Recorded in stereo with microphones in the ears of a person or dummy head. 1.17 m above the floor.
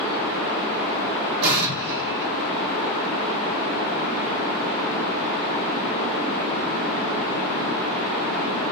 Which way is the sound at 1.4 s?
80° right.